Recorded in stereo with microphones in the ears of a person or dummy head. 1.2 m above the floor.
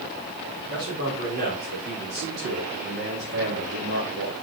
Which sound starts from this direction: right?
A man speaking, at 0.7 s.